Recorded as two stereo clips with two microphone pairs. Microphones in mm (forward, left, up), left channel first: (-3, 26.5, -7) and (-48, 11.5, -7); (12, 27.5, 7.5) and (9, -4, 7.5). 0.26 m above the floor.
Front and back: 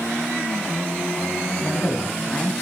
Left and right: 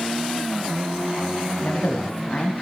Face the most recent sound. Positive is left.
turn(degrees=70)